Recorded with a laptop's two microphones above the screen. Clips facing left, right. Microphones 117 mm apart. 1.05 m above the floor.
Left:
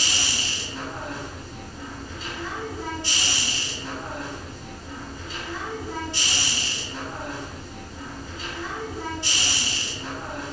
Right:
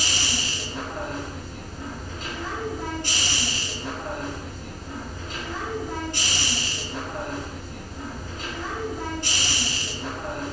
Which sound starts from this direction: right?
A machine running, at 0.0 s.